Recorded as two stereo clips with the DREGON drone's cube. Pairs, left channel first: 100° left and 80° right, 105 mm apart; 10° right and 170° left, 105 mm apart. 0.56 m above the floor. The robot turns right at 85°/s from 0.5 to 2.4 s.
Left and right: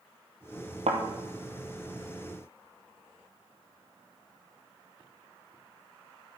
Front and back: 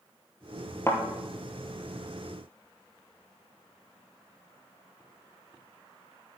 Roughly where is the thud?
Right.